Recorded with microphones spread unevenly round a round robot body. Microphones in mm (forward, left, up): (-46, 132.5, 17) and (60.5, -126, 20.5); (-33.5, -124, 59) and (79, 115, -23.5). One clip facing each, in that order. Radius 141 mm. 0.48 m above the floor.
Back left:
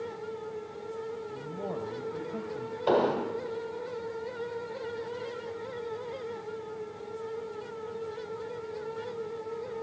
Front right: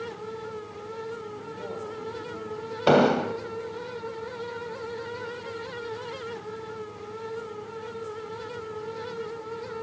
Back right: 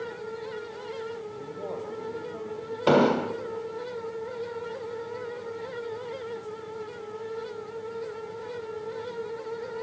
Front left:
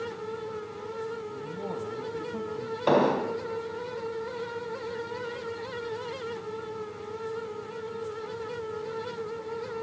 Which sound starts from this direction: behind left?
A man speaking, at 1.3 s.